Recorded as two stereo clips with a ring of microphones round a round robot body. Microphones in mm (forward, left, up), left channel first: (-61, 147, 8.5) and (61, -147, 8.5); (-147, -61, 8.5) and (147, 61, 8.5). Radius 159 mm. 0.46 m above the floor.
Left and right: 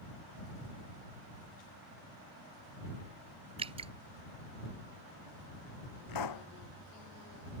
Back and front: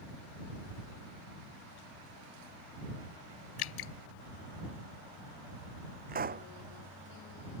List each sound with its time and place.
3.6 s dripping: 140° right
6.1 s a pop: 85° left